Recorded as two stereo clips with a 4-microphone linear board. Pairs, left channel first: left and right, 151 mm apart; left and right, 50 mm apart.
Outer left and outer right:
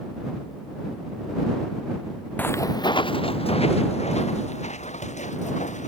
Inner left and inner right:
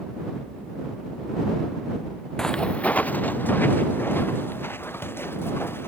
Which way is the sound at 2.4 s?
10° left (ahead or behind).